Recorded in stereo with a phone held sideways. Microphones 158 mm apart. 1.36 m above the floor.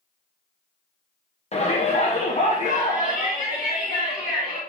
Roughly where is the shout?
Left.